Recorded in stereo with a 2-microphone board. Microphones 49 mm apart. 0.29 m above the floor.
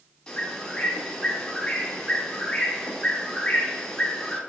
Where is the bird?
15° left (ahead or behind), 0.8 m.